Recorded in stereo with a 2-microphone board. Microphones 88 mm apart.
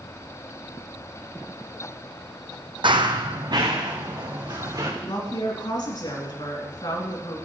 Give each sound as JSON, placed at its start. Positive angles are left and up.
{"t": 2.8, "sound": "running footsteps", "side_deg": -70, "distance_m": 0.6}
{"t": 5.0, "sound": "a woman speaking", "side_deg": 55, "distance_m": 2.0}